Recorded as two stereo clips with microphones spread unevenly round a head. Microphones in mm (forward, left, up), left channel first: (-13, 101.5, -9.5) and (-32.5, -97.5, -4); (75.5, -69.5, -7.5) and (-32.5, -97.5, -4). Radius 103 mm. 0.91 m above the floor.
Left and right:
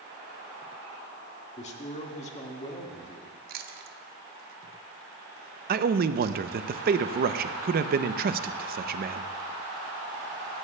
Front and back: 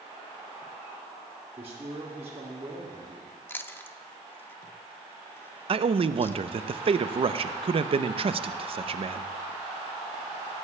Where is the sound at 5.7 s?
135° right, 0.5 m.